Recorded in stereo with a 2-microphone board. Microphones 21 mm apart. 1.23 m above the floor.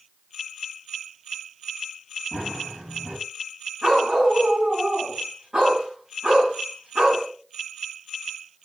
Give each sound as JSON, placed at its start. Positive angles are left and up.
{"t": 2.3, "sound": "running footsteps", "side_deg": -70, "distance_m": 4.5}
{"t": 3.8, "sound": "a dog barking", "side_deg": -35, "distance_m": 5.5}